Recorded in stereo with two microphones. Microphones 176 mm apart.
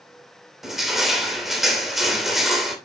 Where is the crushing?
Centre (ahead or behind), 2.5 m.